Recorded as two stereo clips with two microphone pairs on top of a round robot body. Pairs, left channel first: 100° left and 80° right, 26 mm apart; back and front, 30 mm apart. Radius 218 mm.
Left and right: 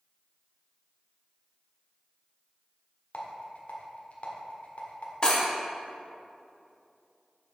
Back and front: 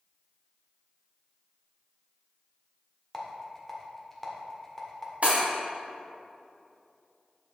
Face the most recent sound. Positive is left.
turn(degrees=35)